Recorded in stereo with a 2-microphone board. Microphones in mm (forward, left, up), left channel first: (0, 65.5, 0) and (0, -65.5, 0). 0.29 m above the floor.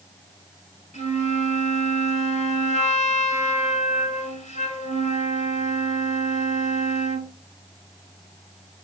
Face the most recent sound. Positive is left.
turn(degrees=60)  # may be behind; listen again after turning